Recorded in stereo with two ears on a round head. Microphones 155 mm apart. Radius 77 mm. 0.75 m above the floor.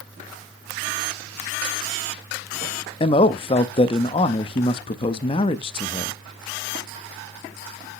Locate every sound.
3.0 s a man speaking: 30° left (ahead or behind), 0.6 m